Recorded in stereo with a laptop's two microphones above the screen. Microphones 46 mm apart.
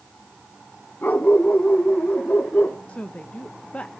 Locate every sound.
1.0 s a dog barking: 40° left (ahead or behind), 4 m; by 2.8 s 35° left (ahead or behind), 5 m
2.9 s a woman speaking: 30° left (ahead or behind), 0.9 m